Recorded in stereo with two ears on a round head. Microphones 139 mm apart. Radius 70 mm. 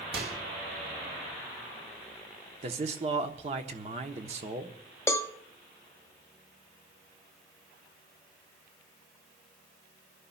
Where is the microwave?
70° right (ahead or behind), 2.5 m.